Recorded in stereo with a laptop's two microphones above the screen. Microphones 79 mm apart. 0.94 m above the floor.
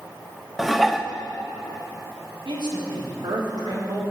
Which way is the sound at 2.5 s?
70° right (ahead or behind).